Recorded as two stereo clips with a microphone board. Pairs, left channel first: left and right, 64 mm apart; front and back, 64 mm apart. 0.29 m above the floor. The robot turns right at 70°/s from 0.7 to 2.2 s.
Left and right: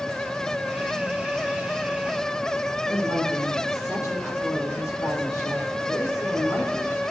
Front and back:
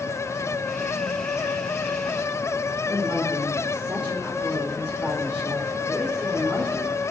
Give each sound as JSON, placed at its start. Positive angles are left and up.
{"t": 2.9, "sound": "a woman speaking", "azimuth_deg": 110, "distance_m": 5.0}